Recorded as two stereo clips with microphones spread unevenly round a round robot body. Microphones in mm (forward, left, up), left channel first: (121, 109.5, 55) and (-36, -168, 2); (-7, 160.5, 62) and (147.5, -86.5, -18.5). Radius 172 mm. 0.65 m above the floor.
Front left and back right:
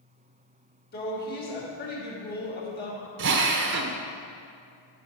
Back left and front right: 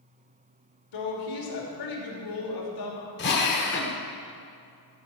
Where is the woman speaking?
125° left, 2.5 m.